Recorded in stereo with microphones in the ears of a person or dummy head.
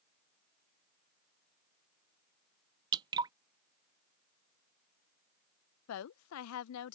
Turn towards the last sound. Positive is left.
turn(degrees=80)